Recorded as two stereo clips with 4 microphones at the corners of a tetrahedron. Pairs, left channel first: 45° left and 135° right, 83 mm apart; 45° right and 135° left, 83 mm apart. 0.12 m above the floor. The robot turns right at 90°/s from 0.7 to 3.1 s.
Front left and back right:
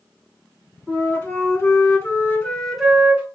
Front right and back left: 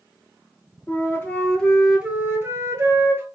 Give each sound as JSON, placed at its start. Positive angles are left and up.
{"t": 0.9, "sound": "a flute", "azimuth_deg": -35, "distance_m": 1.0}